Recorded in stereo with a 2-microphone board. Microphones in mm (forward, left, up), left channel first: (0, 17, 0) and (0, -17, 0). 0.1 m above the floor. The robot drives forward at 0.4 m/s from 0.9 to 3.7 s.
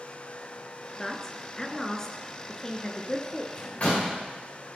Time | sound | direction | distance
1.0 | a man speaking | 15° left (ahead or behind) | 1.8 m
3.5 | a door slam | 45° left (ahead or behind) | 7.5 m